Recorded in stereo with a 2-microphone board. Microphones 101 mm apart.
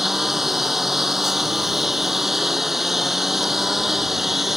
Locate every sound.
0.0 s a lawn mower: centre (ahead or behind)